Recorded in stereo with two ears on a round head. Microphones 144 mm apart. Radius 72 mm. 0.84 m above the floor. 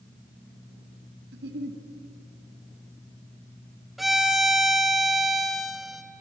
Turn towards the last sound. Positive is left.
turn(degrees=0)  # may be behind; listen again after turning